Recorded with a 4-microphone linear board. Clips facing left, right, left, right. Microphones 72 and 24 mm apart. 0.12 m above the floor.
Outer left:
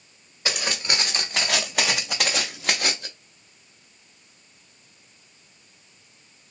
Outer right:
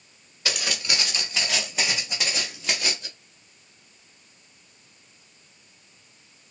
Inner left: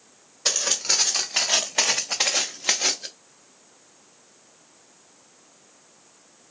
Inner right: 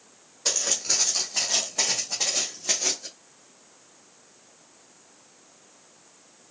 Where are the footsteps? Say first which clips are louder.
Outer left 2 dB, inner left 3 dB; 25° left (ahead or behind), 1.0 m; by 3.1 s 50° left (ahead or behind), 0.8 m.